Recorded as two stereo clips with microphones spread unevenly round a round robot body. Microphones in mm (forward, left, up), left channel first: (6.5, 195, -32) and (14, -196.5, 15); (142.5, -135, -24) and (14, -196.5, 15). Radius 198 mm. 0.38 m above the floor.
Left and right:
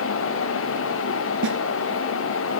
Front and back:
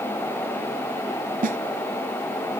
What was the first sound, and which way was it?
A snare drum, 150° right.